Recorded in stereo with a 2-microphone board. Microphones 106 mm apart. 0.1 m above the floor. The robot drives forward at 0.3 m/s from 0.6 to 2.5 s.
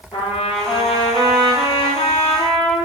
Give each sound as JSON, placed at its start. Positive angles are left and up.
{"t": 0.1, "sound": "a trumpet", "side_deg": 55, "distance_m": 1.7}